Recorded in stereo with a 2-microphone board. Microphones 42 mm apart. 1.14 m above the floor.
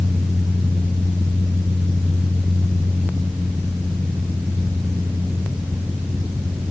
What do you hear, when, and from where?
Only background noise.